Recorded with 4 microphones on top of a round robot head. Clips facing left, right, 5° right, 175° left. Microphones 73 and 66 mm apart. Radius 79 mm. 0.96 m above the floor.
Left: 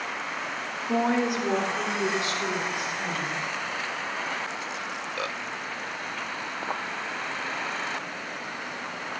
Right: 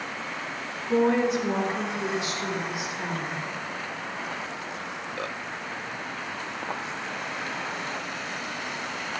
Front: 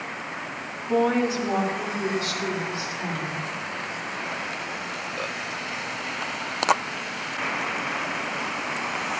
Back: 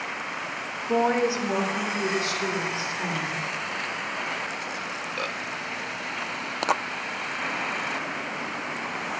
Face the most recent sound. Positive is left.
turn(degrees=110)